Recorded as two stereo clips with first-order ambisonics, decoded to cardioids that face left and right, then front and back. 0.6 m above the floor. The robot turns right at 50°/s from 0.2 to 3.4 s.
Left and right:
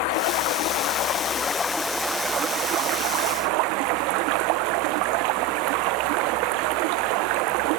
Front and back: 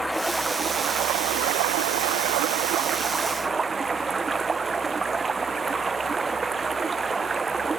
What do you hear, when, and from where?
0.0 s running water: 95° left; by 7.8 s 105° right